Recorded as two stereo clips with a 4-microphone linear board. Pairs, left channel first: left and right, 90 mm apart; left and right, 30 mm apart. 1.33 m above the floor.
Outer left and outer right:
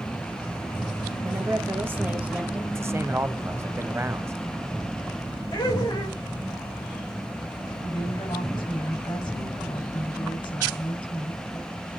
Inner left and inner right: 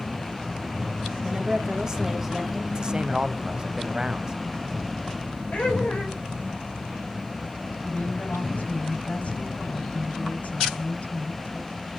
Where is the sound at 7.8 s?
55° left (ahead or behind), 7 m.